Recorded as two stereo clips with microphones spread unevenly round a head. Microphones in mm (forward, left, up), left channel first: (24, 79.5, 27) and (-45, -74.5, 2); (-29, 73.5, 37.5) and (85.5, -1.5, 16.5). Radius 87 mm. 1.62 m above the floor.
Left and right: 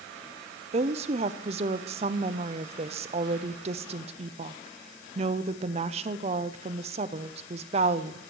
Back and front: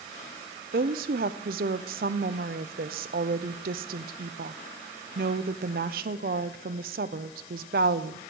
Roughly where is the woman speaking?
Ahead right.